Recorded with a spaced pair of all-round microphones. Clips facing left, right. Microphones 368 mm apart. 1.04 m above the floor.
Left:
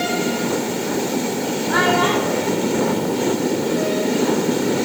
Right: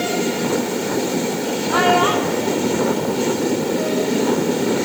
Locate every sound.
1.7 s a child speaking: 30° left (ahead or behind), 3.5 m; by 4.1 s 50° left (ahead or behind), 3 m